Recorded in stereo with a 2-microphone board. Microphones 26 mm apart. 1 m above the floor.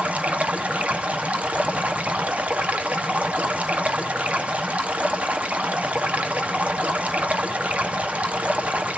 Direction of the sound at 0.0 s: 70° right (ahead or behind).